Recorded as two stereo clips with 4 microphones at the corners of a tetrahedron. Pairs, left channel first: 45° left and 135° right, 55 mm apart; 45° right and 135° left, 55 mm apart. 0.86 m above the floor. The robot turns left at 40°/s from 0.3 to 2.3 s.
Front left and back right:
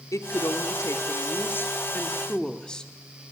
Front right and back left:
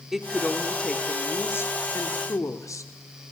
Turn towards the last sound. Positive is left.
turn(degrees=-30)